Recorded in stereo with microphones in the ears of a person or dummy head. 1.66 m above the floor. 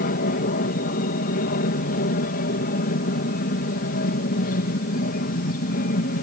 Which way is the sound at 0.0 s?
45° left (ahead or behind).